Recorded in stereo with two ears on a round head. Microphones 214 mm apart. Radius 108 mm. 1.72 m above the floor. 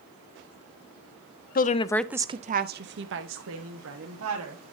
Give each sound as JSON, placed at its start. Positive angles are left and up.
{"t": 1.6, "sound": "a woman speaking", "side_deg": 40, "distance_m": 0.5}